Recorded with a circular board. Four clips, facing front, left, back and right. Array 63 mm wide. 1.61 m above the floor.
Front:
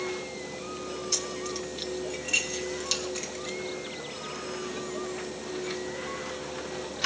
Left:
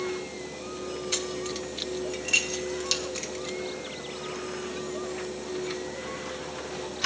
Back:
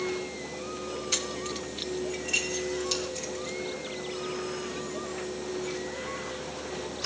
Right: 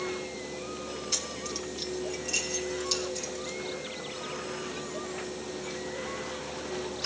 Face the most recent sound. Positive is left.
turn(degrees=50)